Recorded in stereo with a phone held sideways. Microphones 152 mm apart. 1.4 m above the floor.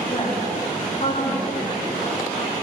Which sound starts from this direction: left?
A woman speaking, at 0.1 s.